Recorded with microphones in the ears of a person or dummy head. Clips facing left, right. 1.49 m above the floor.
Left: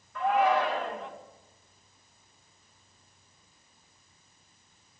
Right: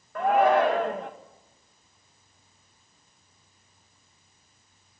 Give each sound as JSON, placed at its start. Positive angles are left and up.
{"t": 0.1, "sound": "a shout", "side_deg": -40, "distance_m": 2.0}